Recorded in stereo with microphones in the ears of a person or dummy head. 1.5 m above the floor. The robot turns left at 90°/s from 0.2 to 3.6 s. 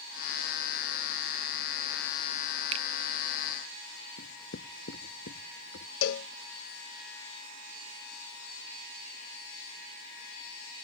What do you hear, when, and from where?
2.7 s a finger snap: 35° right (ahead or behind); by 2.9 s 45° right (ahead or behind)
4.2 s writing: 70° left (ahead or behind)
6.0 s a cowbell: 70° left (ahead or behind)